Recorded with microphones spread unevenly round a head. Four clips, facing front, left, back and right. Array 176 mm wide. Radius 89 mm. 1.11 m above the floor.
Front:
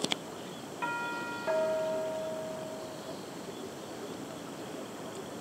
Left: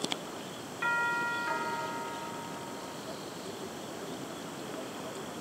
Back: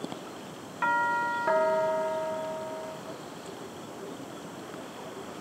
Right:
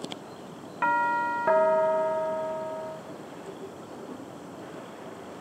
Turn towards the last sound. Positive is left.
turn(degrees=-95)